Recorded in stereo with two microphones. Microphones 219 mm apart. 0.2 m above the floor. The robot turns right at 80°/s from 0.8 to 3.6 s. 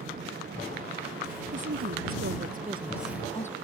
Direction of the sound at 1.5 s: 125° right.